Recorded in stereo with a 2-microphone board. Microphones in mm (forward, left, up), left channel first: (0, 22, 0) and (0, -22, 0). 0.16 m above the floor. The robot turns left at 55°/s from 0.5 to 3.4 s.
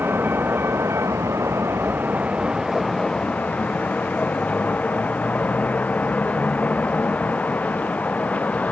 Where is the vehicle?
50° right; by 8.7 s 150° left.